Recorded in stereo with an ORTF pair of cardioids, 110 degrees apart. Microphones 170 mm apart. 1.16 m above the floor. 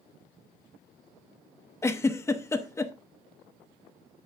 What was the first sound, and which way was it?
A giggle, 15° left.